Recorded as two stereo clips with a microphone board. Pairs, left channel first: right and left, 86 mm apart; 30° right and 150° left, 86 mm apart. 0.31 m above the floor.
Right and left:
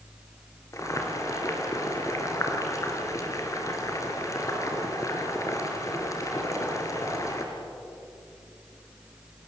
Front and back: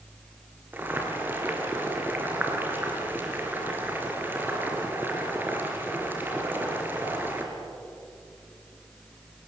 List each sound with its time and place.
0.7 s boiling: 140° right, 3.5 m